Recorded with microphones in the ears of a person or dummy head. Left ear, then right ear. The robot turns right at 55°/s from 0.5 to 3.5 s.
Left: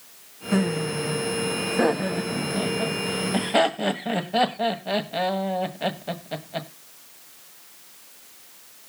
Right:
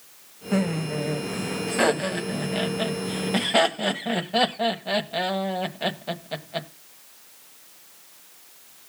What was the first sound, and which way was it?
Laughter, 5° right (ahead or behind).